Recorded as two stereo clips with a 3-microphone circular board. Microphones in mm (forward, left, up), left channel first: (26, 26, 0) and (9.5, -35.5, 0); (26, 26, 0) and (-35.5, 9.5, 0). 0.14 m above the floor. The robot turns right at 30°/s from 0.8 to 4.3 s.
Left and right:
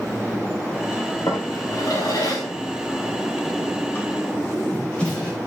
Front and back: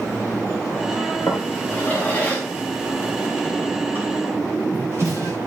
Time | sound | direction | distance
1.3 | a drawer | 55° left | 9.5 m